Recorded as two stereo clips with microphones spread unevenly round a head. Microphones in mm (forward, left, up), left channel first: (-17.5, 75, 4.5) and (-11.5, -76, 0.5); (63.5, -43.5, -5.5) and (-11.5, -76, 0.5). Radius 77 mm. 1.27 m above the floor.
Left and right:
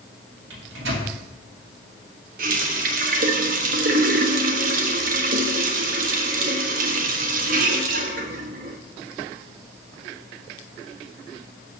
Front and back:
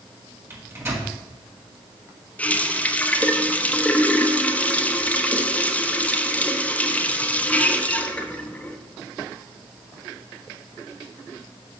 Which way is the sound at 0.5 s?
95° right.